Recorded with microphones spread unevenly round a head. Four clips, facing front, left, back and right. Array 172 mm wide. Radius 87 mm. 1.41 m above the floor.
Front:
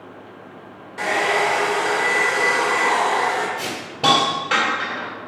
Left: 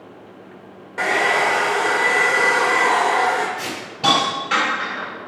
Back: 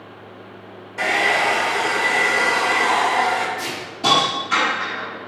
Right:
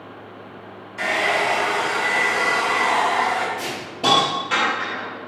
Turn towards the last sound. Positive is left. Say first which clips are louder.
# left 1 dB, front 2 dB
turn(degrees=-10)